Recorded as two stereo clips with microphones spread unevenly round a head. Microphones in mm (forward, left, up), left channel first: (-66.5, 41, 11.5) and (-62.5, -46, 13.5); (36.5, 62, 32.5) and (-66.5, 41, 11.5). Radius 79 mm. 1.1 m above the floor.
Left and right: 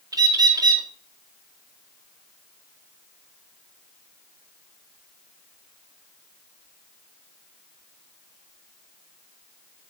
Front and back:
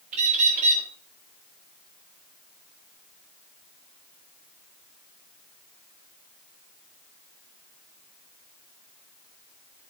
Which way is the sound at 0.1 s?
130° right.